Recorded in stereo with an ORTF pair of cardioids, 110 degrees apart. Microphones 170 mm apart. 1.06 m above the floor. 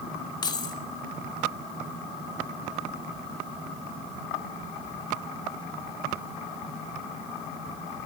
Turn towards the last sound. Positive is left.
turn(degrees=25)